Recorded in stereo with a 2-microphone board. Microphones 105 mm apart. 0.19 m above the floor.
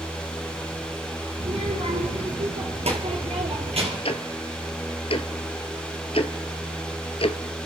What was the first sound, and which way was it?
A child speaking, 65° right (ahead or behind).